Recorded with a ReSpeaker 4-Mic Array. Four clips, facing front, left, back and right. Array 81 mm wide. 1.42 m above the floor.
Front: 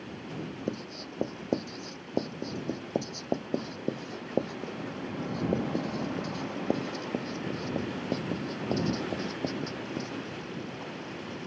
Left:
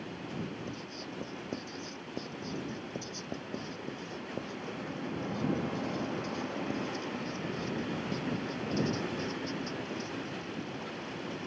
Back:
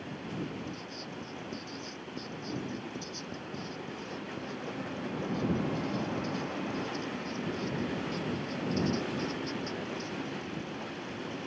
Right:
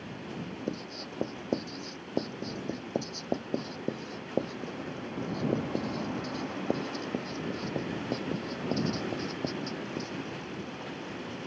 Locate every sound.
0.7 s writing: 40° right